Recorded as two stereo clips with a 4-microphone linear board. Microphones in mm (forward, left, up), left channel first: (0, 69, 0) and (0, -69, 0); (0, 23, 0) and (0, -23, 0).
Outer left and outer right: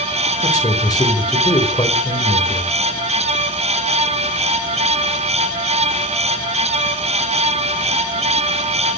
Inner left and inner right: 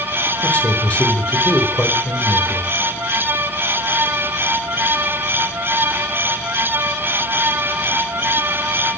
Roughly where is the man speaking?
Left.